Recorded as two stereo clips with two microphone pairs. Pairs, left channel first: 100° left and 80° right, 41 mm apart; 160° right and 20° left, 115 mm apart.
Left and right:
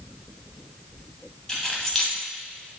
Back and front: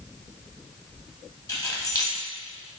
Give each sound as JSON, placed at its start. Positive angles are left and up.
{"t": 1.5, "sound": "keys jangling", "azimuth_deg": 165, "distance_m": 0.8}